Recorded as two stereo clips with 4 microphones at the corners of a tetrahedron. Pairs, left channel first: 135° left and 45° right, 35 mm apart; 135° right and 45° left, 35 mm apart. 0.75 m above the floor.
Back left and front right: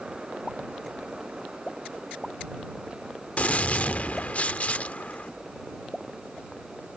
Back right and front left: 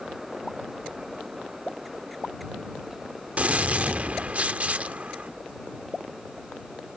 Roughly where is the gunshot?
Left.